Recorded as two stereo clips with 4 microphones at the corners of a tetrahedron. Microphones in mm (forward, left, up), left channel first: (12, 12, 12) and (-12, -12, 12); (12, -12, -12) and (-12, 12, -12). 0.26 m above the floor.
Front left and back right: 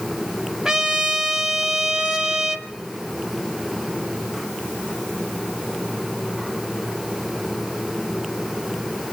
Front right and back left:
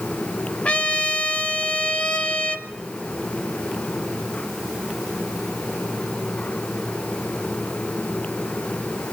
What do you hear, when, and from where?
0.7 s a trumpet: 75° right, 1.1 m